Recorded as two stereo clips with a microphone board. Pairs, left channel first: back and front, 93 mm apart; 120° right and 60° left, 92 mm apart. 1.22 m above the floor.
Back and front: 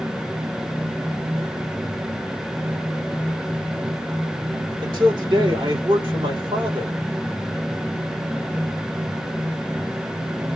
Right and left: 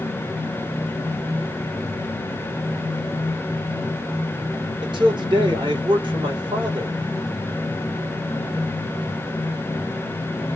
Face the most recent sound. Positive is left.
turn(degrees=30)